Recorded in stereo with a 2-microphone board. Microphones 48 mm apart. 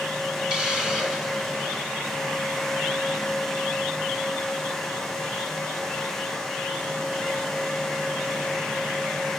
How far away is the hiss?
About 2.5 m.